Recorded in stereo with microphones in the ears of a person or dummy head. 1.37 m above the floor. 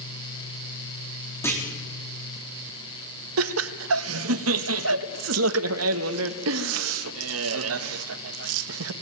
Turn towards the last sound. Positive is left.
turn(degrees=-80)